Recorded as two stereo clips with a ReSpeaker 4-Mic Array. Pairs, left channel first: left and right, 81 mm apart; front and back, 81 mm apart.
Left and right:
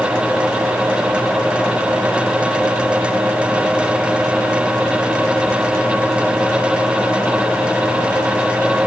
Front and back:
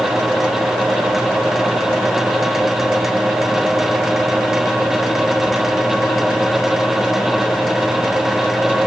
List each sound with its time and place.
Only background noise.